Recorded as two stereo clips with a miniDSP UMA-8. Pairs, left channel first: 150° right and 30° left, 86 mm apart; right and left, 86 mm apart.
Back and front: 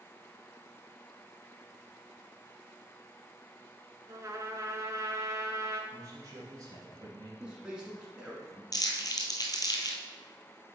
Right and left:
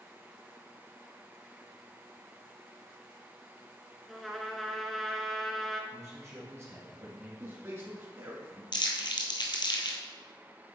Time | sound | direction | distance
4.1 | a trumpet | straight ahead | 0.7 m
5.9 | a man speaking | 55° left | 1.6 m
7.4 | a man speaking | 95° left | 1.2 m
8.7 | crumpling | 115° right | 1.2 m